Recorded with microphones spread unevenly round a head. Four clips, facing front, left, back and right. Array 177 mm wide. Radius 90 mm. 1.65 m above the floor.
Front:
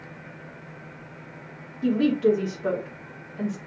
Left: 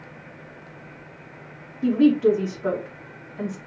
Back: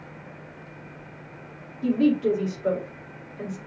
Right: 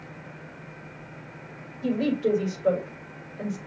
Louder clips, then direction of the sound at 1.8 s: Left 7 dB, even; 60° left.